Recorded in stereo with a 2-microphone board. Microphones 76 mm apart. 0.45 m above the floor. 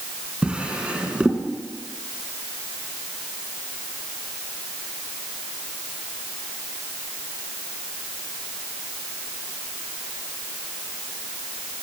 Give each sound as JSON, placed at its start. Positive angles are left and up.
{"t": 0.4, "sound": "a drawer", "side_deg": -15, "distance_m": 2.5}